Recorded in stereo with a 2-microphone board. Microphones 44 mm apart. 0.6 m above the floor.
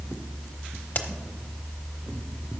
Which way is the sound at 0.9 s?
50° left (ahead or behind).